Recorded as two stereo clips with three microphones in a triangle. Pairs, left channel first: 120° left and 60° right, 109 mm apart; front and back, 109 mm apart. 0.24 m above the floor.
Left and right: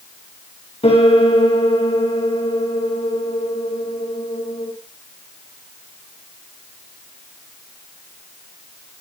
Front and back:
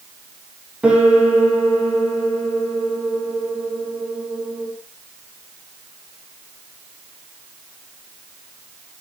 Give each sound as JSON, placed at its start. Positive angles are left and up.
{"t": 0.8, "sound": "a piano", "azimuth_deg": 100, "distance_m": 9.5}